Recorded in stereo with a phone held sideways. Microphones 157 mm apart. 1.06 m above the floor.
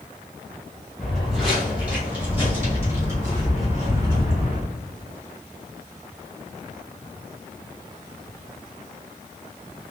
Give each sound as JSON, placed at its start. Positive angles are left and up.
{"t": 1.0, "sound": "footsteps", "side_deg": 5, "distance_m": 1.8}